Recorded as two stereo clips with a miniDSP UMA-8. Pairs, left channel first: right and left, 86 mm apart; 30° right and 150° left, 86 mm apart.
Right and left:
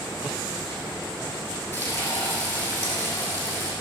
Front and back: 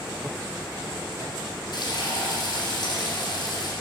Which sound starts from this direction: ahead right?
Frying, at 1.7 s.